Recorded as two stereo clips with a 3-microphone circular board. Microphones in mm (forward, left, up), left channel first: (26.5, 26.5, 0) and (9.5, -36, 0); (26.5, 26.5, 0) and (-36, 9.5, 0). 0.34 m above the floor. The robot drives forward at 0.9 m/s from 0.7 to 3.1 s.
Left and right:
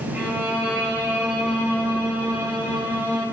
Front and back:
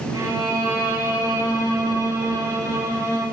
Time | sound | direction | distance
0.1 | a violin | 175° right | 6 m